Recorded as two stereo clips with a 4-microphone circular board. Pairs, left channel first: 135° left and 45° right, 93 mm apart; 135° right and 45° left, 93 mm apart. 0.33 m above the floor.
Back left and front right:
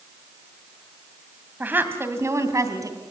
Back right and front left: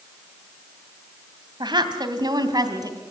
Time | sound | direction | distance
1.6 | a woman speaking | 25° left | 2.5 m